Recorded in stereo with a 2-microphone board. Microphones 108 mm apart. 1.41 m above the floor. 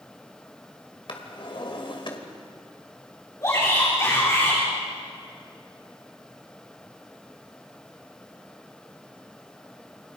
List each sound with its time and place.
1.1 s a drawer: 50° left (ahead or behind), 2.5 m
3.4 s a shout: 30° left (ahead or behind), 4.5 m